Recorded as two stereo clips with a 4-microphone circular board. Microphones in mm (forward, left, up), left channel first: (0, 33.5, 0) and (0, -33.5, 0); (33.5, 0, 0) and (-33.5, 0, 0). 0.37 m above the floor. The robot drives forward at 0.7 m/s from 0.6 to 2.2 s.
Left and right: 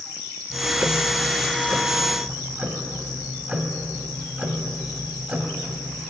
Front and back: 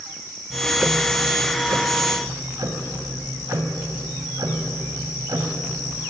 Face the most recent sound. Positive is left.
turn(degrees=-165)